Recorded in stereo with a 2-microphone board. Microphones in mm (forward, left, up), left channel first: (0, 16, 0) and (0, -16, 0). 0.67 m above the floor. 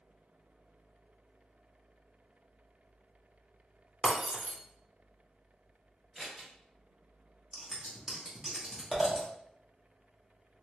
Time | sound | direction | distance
4.0 | breaking glass | 35° right (ahead or behind) | 0.9 m
6.2 | scissors | centre (ahead or behind) | 1.8 m
7.5 | scissors | 5° right (ahead or behind) | 1.2 m